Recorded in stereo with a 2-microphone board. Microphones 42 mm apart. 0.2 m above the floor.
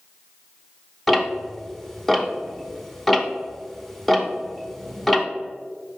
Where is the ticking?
5° left (ahead or behind), 0.5 m.